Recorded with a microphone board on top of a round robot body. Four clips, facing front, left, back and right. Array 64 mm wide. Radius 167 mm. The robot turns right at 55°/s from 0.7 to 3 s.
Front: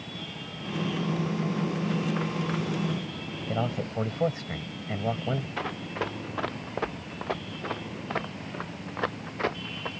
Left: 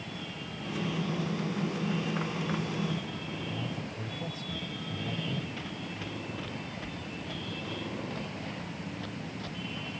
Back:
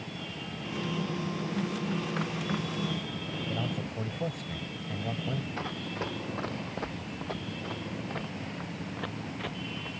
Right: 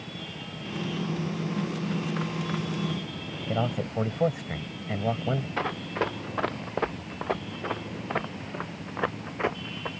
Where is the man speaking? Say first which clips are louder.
Right 8 dB, front 7 dB; 55° right.